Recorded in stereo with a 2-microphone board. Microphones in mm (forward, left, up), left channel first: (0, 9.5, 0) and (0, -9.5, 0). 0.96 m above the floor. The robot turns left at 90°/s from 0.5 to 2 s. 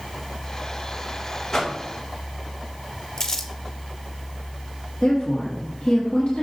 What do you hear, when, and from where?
1.5 s a whoosh: 30° left (ahead or behind), 1.2 m; by 1.8 s 10° left (ahead or behind), 1.2 m
3.2 s crumpling: 35° left (ahead or behind), 1.1 m
5.0 s a woman speaking: 70° left (ahead or behind), 1.7 m